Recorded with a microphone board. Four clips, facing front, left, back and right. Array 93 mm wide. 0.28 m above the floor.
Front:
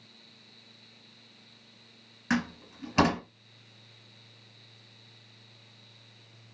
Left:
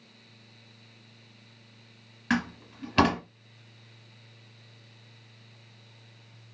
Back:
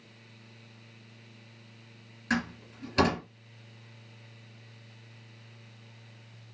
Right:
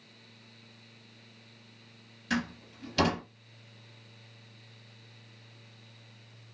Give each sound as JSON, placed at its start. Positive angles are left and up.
{"t": 2.3, "sound": "a door slam", "azimuth_deg": 65, "distance_m": 1.5}